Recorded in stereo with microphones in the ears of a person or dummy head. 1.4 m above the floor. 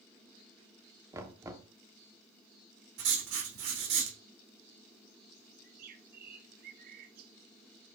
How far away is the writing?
About 1.9 m.